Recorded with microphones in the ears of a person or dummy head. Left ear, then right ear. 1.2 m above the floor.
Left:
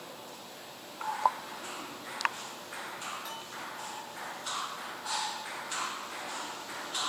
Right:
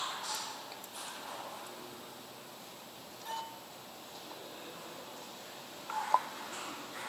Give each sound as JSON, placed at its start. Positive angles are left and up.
{"t": 3.2, "sound": "a bell", "side_deg": 60, "distance_m": 7.0}